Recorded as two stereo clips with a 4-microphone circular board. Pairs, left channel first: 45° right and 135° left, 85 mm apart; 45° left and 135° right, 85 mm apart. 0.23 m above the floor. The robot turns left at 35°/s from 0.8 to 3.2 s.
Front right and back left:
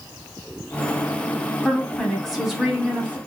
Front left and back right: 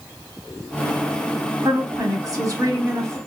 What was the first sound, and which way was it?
A woman speaking, 110° right.